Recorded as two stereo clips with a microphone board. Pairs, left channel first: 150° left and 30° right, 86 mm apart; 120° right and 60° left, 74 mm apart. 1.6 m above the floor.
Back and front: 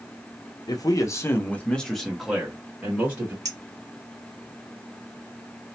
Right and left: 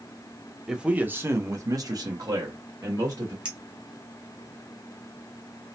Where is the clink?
10° right, 1.1 m.